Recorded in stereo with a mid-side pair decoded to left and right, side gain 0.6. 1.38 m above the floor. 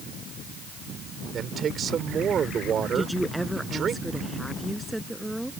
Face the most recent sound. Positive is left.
turn(degrees=-5)